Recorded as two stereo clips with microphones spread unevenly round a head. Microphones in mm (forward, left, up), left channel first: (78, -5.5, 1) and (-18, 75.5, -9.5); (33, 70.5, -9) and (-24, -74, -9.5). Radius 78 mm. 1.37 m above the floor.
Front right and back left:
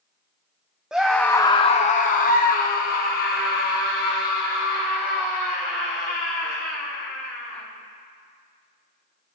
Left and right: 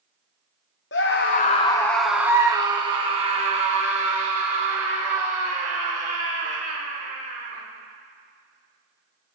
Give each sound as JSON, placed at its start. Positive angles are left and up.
{"t": 0.9, "sound": "a scream", "azimuth_deg": 55, "distance_m": 1.0}